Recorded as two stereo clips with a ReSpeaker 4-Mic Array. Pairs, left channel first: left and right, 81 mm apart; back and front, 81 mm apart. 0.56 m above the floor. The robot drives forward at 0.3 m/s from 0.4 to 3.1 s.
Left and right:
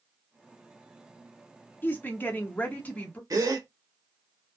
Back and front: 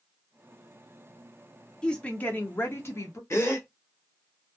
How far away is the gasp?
About 0.8 m.